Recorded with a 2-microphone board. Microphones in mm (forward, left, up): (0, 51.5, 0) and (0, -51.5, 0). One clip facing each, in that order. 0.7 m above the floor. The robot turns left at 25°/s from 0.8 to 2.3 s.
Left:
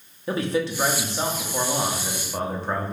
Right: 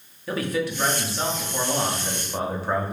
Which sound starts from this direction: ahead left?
A man speaking, at 0.3 s.